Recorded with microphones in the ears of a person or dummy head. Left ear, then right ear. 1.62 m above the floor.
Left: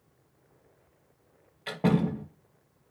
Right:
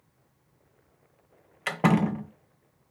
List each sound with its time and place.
1.7 s a door slam: 65° right (ahead or behind), 1.4 m